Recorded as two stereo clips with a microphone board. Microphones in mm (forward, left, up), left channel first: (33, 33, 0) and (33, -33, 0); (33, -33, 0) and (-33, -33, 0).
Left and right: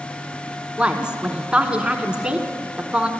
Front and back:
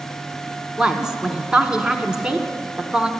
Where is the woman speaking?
125° right, 1.1 m.